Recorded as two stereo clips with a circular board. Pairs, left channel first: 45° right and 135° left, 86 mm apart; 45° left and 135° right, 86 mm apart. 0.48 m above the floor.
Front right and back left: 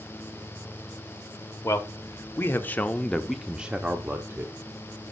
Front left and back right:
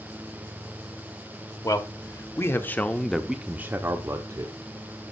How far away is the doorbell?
I don't hear a doorbell.